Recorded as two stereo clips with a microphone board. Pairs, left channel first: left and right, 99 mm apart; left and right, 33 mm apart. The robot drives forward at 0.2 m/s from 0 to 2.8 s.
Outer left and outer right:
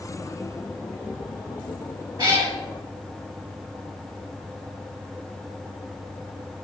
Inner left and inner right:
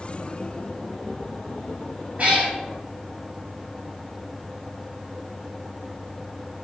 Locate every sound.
2.2 s a cat meowing: 40° right (ahead or behind), 0.8 m